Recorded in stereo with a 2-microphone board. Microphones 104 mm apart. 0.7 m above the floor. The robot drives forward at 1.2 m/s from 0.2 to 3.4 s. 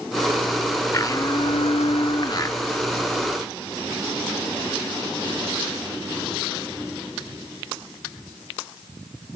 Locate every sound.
0.9 s a blender: 30° left (ahead or behind), 1.2 m; by 2.6 s 35° left (ahead or behind), 1.1 m